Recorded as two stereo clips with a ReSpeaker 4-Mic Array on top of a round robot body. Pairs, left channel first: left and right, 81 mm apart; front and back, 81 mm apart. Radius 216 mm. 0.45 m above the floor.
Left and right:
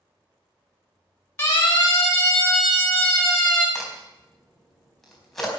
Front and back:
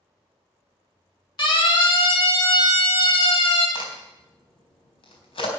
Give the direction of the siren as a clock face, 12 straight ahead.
11 o'clock.